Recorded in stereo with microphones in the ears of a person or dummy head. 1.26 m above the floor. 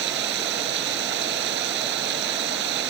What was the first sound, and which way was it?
Running water, 65° right (ahead or behind).